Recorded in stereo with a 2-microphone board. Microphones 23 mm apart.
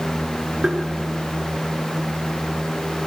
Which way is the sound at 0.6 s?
40° right (ahead or behind).